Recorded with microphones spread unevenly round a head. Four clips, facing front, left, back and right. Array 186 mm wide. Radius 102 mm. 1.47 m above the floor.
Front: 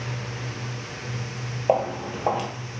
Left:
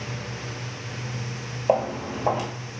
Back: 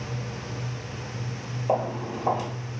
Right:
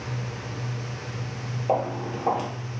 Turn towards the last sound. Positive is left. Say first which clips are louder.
# left 3 dB, front 3 dB
turn(degrees=75)